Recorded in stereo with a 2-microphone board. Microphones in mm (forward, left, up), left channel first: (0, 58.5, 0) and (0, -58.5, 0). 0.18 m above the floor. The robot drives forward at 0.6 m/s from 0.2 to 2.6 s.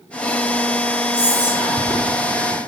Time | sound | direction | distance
1.1 | whispering | 10° right (ahead or behind) | 1.9 m